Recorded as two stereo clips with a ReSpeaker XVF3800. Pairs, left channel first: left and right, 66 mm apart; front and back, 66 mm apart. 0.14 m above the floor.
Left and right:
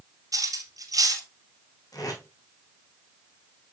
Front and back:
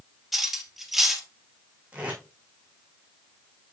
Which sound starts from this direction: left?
Tape being pulled, at 1.9 s.